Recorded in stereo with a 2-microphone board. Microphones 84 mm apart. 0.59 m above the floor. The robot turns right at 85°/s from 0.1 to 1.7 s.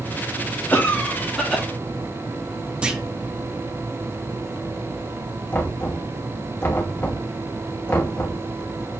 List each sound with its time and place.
0.7 s a cough: 20° left (ahead or behind), 0.8 m; by 1.6 s 5° right (ahead or behind), 0.8 m
2.8 s a clunk: 15° right (ahead or behind), 0.8 m
5.5 s knocking: 25° left (ahead or behind), 1.2 m